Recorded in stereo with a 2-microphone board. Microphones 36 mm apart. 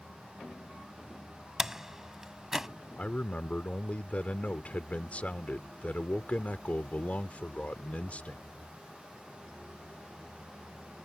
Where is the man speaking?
45° left (ahead or behind).